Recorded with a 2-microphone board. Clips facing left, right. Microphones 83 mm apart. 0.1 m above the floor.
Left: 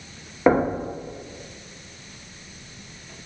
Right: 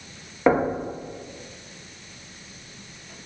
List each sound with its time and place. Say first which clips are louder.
0.5 s knocking: left 1 dB; 5° left (ahead or behind), 3 m